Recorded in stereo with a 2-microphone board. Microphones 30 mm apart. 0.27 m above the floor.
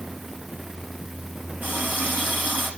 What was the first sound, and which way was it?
A running tap, 75° right (ahead or behind).